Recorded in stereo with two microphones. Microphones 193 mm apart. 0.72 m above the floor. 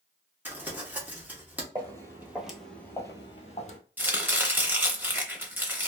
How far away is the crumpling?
About 0.9 m.